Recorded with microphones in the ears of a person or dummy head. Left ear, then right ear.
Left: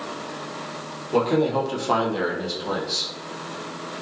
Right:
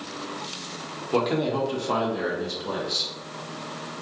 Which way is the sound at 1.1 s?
15° right (ahead or behind).